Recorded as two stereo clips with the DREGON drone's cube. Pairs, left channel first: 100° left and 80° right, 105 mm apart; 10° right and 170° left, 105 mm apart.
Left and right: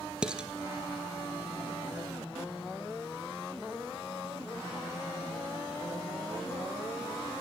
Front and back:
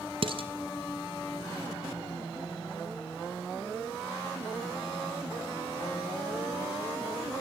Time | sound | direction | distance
0.2 | dishes clattering | 160° right | 2.0 m